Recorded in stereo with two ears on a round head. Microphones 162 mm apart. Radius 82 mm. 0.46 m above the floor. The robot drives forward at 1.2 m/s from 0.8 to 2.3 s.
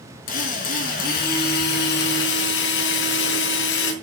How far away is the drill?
About 5 m.